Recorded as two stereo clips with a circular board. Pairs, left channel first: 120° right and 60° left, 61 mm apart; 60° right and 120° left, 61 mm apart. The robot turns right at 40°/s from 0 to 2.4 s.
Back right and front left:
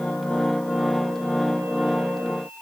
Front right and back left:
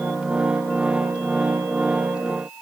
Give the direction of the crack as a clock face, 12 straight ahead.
No crack in this recording.